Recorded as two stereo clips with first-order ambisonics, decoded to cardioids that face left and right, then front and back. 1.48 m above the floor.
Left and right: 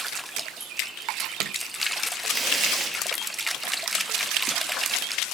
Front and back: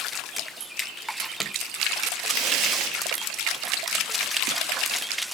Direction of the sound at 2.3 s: 165° right.